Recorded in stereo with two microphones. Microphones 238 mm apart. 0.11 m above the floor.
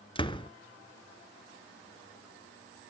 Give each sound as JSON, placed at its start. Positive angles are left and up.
{"t": 0.1, "sound": "a door slam", "side_deg": 20, "distance_m": 0.8}